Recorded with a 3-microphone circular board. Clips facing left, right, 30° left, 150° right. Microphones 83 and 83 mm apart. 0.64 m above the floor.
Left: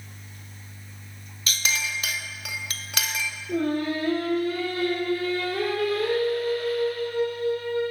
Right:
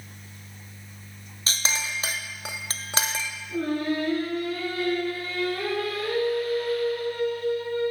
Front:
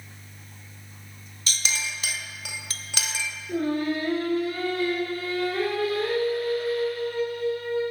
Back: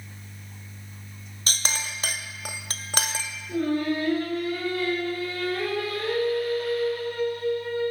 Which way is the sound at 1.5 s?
135° right.